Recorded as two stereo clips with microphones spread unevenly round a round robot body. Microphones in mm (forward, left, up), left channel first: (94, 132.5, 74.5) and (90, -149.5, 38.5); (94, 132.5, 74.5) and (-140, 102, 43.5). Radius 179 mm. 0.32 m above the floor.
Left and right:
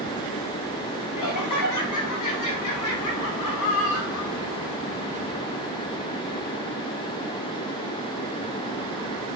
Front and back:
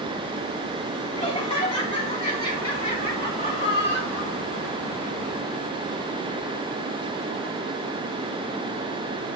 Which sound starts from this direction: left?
Laughter, at 1.2 s.